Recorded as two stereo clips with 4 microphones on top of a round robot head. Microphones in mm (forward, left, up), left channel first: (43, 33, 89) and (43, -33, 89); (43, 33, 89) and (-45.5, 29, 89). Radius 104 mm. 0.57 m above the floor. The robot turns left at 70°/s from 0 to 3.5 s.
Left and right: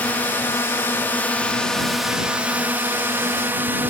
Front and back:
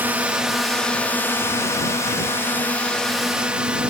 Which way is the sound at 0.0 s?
135° left.